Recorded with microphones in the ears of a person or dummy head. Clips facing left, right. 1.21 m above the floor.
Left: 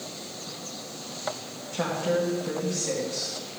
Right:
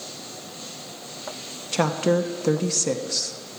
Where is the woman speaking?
80° right, 0.5 m.